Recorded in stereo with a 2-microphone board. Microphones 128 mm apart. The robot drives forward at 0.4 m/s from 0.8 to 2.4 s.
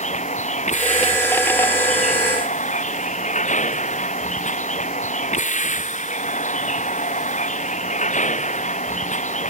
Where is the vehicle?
70° left (ahead or behind).